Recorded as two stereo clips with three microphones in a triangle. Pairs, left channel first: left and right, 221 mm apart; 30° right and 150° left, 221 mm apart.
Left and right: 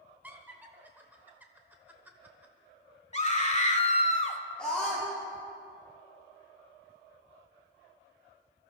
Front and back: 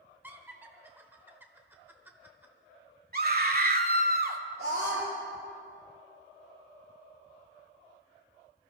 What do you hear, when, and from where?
0.2 s laughter: 150° right, 0.8 m
3.1 s a scream: 135° left, 1.3 m
4.6 s a scream: 175° left, 3 m